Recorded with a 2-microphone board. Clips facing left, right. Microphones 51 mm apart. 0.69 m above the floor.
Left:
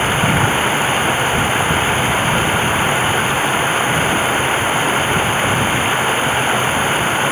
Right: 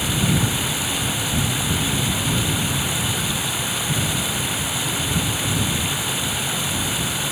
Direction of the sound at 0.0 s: 40° left (ahead or behind).